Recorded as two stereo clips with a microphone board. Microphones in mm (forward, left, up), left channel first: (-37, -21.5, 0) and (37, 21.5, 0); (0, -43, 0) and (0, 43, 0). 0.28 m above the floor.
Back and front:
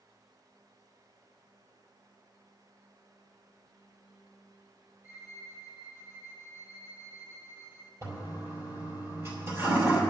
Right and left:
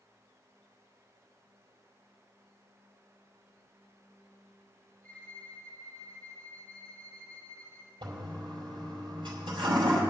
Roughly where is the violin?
Ahead right.